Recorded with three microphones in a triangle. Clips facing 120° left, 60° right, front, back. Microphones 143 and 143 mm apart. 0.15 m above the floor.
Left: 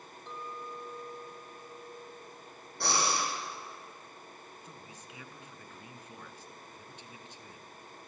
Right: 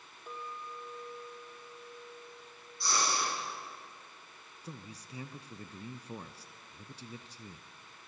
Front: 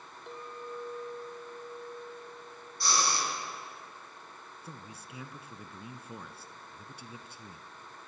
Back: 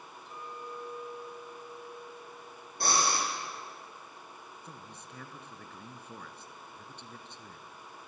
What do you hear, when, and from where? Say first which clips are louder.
0.3 s a clink: left 1 dB, front 2 dB; 20° left, 4 m
2.8 s breathing: left 2 dB, back 2 dB; 145° left, 5.5 m
4.6 s a man speaking: right 2 dB, front 1 dB; 75° right, 1.4 m